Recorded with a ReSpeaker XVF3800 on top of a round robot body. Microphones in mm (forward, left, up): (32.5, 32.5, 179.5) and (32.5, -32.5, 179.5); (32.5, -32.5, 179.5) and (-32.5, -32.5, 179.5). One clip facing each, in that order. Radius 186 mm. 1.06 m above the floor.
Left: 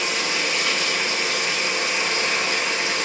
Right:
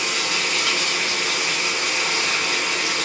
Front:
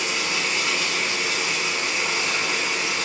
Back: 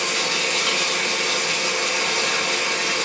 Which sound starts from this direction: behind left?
Running water, at 0.0 s.